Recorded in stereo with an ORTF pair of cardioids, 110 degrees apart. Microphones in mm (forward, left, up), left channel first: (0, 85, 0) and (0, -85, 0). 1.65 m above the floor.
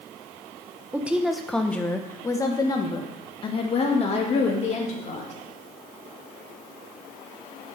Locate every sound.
0.9 s a woman speaking: 10° right, 1.3 m; by 5.3 s 45° left, 3 m